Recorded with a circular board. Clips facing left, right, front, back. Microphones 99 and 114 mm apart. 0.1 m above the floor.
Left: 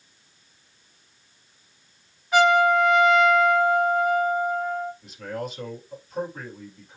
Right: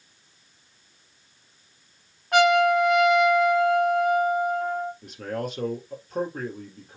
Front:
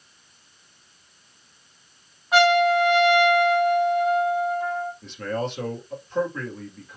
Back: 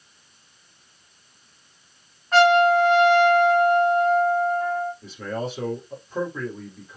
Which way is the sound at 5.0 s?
100° right.